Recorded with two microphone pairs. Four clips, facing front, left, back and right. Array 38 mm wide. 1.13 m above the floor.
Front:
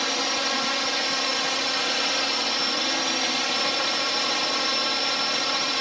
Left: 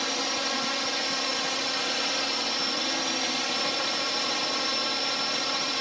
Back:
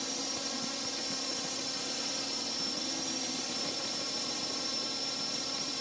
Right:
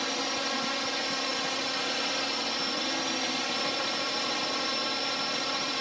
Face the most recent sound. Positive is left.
turn(degrees=5)